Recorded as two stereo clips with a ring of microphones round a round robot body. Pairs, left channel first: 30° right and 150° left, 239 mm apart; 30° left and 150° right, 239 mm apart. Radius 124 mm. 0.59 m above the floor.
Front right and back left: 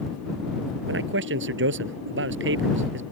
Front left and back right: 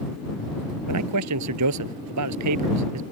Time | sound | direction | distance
0.9 | a man speaking | 165° right | ?